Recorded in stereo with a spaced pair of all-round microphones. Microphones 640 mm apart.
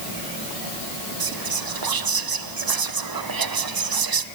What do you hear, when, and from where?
1.2 s whispering: 35° right (ahead or behind), 0.5 m